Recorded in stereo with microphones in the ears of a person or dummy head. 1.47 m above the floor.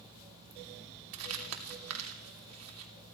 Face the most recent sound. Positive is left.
turn(degrees=-75)  # may be behind; listen again after turning